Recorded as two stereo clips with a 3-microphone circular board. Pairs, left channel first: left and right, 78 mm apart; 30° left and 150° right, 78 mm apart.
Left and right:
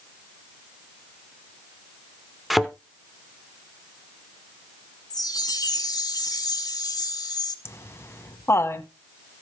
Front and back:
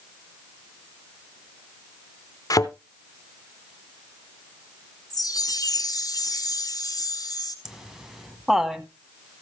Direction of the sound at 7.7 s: 130° left.